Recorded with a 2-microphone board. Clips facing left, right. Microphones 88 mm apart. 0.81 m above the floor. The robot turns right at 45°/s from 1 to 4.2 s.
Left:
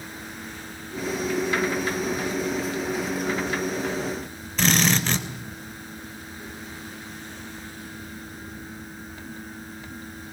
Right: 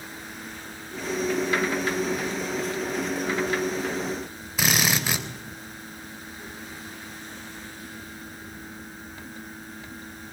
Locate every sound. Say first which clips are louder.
4.6 s a drill: left 3 dB; 10° right (ahead or behind), 3.5 m